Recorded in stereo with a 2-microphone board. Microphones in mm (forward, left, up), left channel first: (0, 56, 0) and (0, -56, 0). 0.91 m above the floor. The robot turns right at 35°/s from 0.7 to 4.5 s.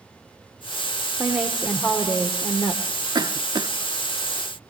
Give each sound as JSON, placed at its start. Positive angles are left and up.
{"t": 1.2, "sound": "a woman speaking", "azimuth_deg": -15, "distance_m": 2.5}
{"t": 3.1, "sound": "a cough", "side_deg": -35, "distance_m": 0.6}